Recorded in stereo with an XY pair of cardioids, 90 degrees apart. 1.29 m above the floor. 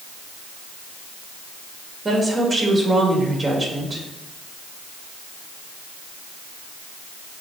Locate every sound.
2.0 s a woman speaking: 30° right, 2.5 m